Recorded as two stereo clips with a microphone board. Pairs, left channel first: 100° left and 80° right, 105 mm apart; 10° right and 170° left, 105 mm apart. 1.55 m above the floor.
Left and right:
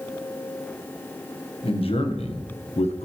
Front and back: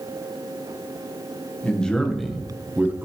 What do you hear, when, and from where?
1.6 s a man speaking: 70° left, 1.5 m; by 3.0 s 105° left, 0.8 m